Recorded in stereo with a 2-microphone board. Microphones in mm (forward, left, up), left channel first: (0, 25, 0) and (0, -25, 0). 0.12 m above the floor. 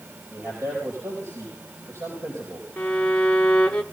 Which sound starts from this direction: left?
A violin, at 2.8 s.